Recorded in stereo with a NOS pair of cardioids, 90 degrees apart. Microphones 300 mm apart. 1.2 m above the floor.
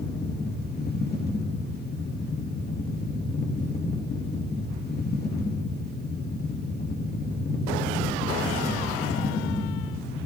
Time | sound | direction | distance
0.0 | a fan | 35° left | 1.1 m